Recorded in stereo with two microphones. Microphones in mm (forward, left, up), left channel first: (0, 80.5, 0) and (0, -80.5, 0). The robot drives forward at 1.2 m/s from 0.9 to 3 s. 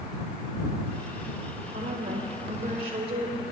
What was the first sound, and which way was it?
A woman speaking, 60° right (ahead or behind).